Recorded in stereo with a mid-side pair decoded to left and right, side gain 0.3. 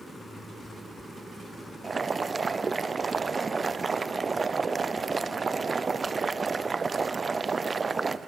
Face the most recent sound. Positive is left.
turn(degrees=-40)